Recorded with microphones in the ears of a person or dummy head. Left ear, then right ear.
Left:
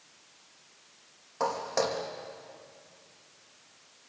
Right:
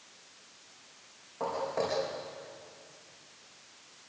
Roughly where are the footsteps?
Left.